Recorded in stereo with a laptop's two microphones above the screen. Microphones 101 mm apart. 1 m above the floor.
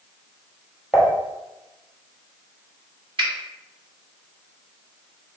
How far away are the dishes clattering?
About 1.0 m.